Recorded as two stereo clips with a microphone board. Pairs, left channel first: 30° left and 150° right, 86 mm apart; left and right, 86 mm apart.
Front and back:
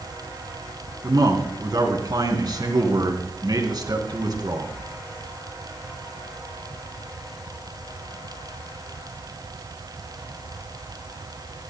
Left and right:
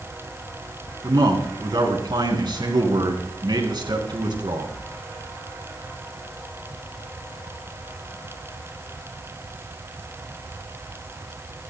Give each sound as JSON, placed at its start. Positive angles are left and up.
{"t": 1.0, "sound": "a man speaking", "azimuth_deg": -115, "distance_m": 3.0}